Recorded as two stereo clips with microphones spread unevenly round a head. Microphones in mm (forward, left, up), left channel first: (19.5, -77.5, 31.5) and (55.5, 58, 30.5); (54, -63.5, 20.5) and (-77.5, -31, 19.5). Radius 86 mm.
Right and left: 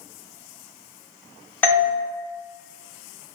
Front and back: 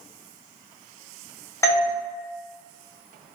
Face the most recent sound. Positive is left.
turn(degrees=-50)